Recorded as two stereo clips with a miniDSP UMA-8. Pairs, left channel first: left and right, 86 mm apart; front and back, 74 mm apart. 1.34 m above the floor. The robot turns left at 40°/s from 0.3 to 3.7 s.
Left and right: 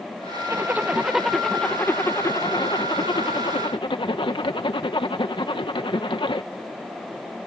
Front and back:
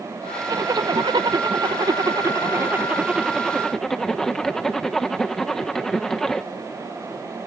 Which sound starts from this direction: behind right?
A zipper, at 0.5 s.